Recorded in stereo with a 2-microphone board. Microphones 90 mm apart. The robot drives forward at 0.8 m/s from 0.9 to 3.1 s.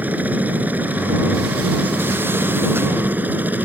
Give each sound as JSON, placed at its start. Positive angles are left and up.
{"t": 0.0, "sound": "a helicopter", "side_deg": -20}